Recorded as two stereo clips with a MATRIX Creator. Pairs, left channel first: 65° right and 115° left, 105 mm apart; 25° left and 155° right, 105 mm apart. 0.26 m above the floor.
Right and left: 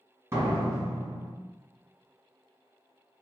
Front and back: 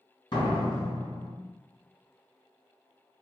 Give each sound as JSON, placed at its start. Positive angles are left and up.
{"t": 0.3, "sound": "a door slam", "azimuth_deg": 50, "distance_m": 2.0}